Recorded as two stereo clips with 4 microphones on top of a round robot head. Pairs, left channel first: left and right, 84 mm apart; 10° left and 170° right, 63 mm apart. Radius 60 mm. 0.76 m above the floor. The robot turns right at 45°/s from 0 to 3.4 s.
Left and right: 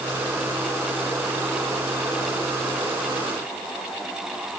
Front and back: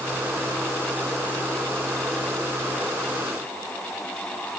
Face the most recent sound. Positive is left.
No sound to turn to.